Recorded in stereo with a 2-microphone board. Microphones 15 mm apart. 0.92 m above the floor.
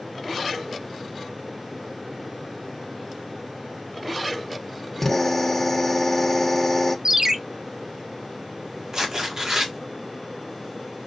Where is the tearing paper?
40° right (ahead or behind), 1.6 m.